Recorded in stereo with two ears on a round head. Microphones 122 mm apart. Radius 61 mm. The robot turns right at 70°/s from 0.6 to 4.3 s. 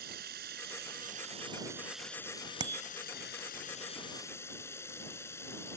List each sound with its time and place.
0.0 s running water: 100° right; by 5.8 s 160° left
2.6 s a bicycle bell: 35° right (ahead or behind); by 2.9 s 15° right (ahead or behind)